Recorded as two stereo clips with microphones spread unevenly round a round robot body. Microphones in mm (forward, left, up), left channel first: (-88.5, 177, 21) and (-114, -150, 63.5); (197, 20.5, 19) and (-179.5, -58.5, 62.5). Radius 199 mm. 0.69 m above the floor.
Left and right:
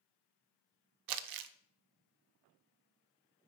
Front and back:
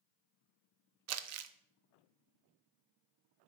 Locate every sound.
1.1 s crumpling: 115° right, 0.6 m